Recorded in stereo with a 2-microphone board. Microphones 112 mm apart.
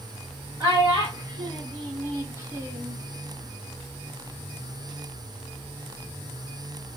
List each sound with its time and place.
0.6 s a child speaking: 35° right (ahead or behind), 1.6 m; by 3.0 s 20° right (ahead or behind), 0.9 m